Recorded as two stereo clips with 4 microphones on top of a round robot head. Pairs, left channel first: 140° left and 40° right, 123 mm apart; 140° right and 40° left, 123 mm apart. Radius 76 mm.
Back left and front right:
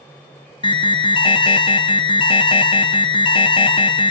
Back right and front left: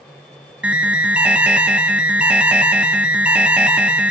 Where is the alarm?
115° left, 0.5 m.